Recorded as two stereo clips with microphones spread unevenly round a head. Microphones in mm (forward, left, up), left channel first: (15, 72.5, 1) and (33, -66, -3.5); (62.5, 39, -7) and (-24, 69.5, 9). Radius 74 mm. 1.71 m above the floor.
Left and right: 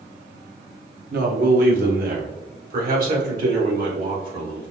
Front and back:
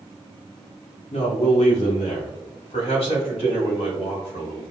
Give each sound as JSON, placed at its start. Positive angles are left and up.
{"t": 1.1, "sound": "a man speaking", "azimuth_deg": -70, "distance_m": 1.1}